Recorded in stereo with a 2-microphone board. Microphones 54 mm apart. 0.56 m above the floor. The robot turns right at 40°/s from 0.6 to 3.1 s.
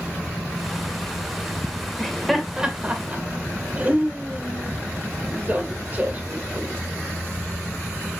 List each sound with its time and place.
2.0 s laughter: 10° left (ahead or behind), 2.5 m; by 6.7 s 30° right (ahead or behind), 2.5 m